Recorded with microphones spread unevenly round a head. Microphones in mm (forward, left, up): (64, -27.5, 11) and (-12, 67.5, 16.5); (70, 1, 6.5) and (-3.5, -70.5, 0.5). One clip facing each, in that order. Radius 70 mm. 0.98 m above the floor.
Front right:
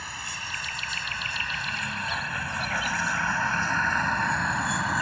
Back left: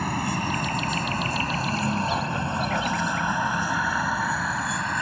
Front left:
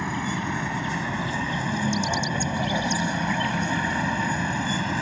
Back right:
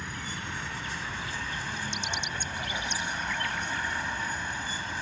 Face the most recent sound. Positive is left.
turn(degrees=35)